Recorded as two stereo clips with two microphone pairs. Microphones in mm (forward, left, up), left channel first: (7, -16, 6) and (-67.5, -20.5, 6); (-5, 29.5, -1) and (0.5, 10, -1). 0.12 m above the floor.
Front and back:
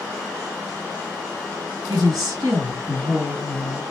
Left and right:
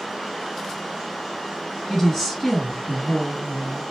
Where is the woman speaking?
170° left, 2 m.